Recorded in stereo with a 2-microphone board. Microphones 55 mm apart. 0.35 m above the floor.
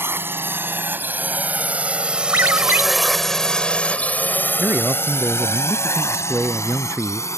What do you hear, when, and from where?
0.0 s a drone: 45° right (ahead or behind); by 7.4 s 65° left (ahead or behind)
2.3 s a ringtone: 50° right (ahead or behind)
4.6 s a man speaking: 30° right (ahead or behind)